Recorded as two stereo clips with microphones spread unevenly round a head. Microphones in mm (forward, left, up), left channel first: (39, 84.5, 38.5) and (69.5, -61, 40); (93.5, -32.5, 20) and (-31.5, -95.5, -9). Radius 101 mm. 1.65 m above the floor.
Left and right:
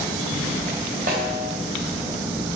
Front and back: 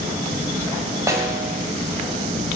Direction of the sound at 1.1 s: 80° right.